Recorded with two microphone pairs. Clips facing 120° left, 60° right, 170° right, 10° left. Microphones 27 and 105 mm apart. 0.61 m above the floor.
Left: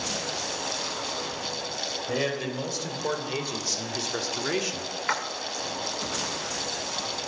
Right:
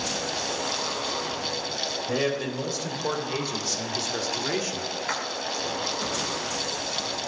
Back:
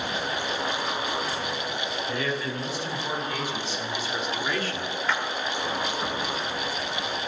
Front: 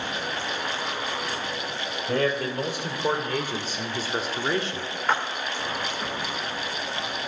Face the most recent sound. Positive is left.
turn(degrees=55)